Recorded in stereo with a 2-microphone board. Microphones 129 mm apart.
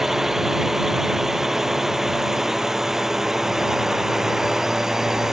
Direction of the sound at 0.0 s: 5° right (ahead or behind).